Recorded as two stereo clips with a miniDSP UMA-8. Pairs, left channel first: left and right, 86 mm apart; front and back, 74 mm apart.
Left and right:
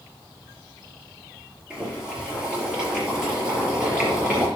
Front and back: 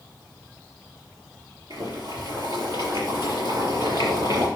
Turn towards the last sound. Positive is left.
turn(degrees=-170)